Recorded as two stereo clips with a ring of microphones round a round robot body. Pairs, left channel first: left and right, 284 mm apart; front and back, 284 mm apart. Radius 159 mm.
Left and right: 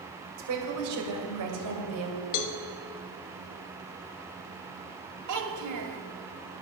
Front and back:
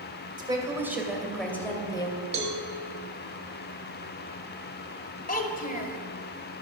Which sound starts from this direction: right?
A woman speaking, at 0.4 s.